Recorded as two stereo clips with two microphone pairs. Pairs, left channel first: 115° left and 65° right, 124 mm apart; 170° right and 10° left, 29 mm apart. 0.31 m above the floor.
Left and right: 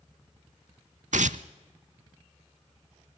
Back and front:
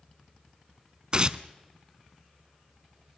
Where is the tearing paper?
55° right, 0.5 m.